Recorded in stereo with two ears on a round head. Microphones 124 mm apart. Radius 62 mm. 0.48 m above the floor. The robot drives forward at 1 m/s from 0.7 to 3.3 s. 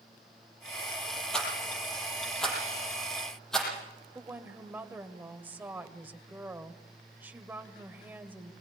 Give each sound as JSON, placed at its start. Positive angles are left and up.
{"t": 1.3, "sound": "a rattle", "side_deg": 5, "distance_m": 8.5}
{"t": 4.2, "sound": "a woman speaking", "side_deg": -15, "distance_m": 2.0}